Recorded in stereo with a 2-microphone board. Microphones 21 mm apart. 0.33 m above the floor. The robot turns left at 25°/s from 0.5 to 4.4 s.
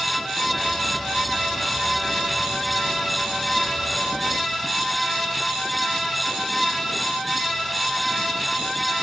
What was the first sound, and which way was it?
Only background noise.